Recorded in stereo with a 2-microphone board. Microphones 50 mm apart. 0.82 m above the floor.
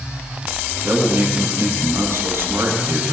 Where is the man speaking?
50° right (ahead or behind), 7.5 m.